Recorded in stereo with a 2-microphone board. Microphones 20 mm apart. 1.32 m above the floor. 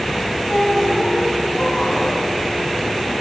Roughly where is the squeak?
Left.